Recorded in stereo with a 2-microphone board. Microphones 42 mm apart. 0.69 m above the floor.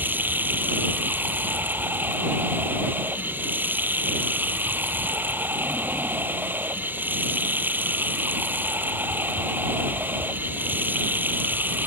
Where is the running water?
45° right (ahead or behind).